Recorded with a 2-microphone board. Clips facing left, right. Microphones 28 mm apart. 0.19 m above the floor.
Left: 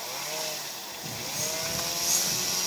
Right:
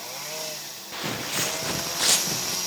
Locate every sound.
0.9 s footsteps: 80° right, 1.7 m; by 2.6 s 70° right (ahead or behind), 3 m